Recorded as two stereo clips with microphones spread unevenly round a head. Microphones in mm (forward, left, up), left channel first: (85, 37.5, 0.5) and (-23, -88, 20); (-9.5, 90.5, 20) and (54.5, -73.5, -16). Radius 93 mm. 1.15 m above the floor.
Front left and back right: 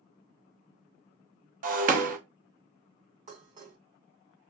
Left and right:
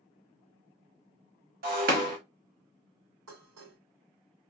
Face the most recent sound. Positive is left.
turn(degrees=-85)